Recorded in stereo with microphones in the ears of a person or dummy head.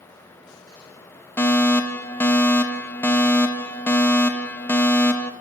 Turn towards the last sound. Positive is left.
turn(degrees=10)  # may be behind; listen again after turning